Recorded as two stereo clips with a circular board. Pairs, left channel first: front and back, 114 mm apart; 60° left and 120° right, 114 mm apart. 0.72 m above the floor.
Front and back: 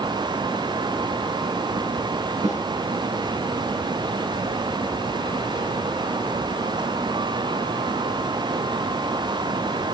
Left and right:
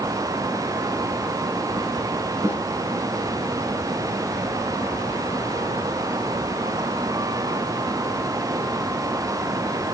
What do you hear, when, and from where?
2.4 s a snare drum: straight behind, 3 m